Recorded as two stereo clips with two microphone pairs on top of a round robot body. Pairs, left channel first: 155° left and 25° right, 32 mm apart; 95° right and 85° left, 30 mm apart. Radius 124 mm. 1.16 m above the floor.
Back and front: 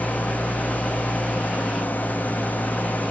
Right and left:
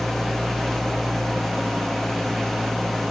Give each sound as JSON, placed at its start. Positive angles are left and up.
{"t": 0.0, "sound": "an engine running", "azimuth_deg": -175, "distance_m": 1.9}